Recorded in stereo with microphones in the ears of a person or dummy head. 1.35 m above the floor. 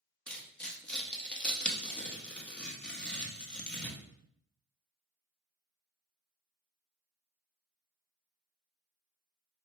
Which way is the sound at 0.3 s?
Centre (ahead or behind).